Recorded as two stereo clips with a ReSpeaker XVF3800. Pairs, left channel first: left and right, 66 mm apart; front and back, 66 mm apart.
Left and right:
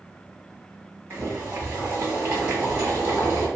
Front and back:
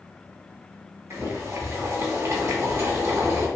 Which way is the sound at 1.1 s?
140° right.